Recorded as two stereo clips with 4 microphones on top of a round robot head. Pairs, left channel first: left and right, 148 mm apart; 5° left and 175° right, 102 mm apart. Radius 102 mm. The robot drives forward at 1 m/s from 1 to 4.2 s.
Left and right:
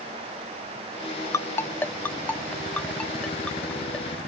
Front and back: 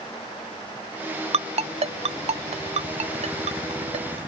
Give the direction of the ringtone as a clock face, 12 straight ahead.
7 o'clock.